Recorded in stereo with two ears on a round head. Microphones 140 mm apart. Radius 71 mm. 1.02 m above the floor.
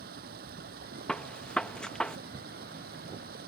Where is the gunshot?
5° left (ahead or behind).